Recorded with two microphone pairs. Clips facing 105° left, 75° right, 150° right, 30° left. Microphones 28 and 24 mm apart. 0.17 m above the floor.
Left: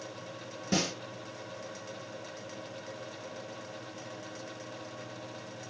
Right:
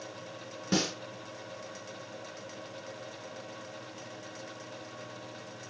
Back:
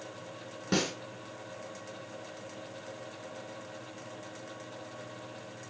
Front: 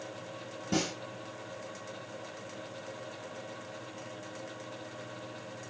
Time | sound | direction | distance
0.7 | a snare drum | 130° right | 1.5 m